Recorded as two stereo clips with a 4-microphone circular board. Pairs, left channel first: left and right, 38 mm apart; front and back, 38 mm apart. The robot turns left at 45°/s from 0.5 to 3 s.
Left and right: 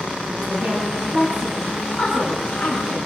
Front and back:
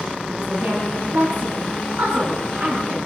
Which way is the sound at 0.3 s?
115° right.